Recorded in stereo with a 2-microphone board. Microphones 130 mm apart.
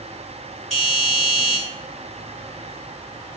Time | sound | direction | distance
0.7 | a doorbell | 5° left (ahead or behind) | 2.0 m